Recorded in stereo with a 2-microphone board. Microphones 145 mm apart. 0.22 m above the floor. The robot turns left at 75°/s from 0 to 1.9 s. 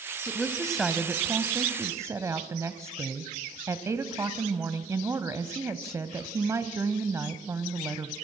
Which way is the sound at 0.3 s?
15° left (ahead or behind).